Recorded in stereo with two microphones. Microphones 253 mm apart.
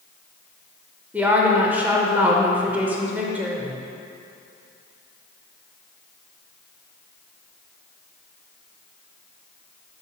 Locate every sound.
1.1 s a woman speaking: 5° right (ahead or behind), 0.8 m